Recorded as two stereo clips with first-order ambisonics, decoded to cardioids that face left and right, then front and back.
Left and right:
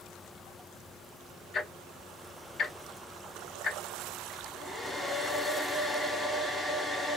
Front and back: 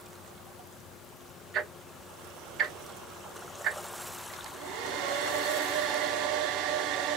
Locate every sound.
1.5 s ticking: 140° left, 1.7 m
4.3 s a hair dryer: 175° left, 0.8 m